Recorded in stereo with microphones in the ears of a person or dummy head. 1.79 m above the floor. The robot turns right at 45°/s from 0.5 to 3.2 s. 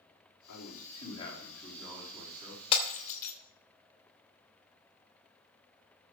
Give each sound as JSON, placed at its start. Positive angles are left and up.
{"t": 0.5, "sound": "a man speaking", "azimuth_deg": 120, "distance_m": 5.0}
{"t": 2.7, "sound": "breaking glass", "side_deg": 30, "distance_m": 3.0}